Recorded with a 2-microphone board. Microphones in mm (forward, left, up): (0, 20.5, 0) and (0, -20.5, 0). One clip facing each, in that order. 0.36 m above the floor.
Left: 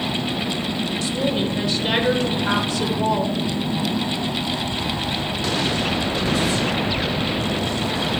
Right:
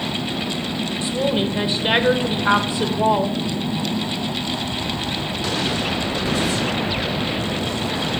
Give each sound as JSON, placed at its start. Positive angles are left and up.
{"t": 1.0, "sound": "a woman speaking", "side_deg": -25, "distance_m": 0.9}